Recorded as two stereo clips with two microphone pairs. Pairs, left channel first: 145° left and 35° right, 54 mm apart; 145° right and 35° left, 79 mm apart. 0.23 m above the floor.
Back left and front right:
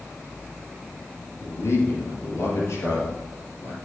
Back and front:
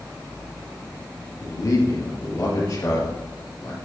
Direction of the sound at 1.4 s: 175° left.